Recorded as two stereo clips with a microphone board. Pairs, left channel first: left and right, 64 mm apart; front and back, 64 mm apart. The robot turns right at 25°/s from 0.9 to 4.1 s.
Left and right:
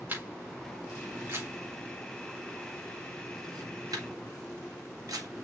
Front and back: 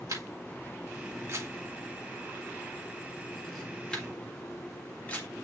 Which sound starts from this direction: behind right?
A camera shutter, at 0.1 s.